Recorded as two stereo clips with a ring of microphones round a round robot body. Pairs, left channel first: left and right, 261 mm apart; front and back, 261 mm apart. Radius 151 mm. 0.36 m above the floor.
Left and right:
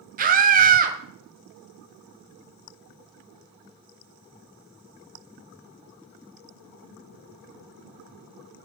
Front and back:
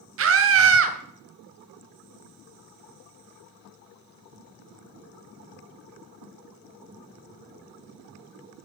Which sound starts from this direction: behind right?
A scream, at 0.2 s.